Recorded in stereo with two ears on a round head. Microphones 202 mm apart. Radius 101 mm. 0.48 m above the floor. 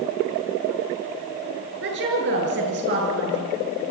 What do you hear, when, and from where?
1.8 s a woman speaking: 55° right (ahead or behind), 7.5 m